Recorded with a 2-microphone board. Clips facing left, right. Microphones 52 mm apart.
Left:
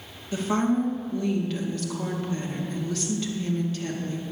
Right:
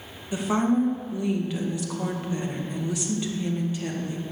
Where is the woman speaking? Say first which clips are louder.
Right 1 dB; 15° right (ahead or behind), 2 m.